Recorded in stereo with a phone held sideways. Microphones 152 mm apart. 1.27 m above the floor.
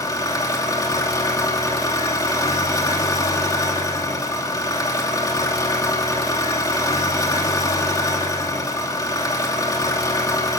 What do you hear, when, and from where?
0.0 s an engine running: 20° left (ahead or behind), 2.5 m